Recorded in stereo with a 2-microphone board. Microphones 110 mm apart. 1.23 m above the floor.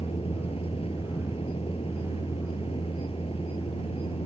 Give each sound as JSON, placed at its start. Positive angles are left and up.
{"t": 0.0, "sound": "a vehicle", "side_deg": 55}